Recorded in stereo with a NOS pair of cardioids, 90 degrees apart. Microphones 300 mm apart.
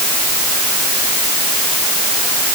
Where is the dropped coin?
No dropped coin in this recording.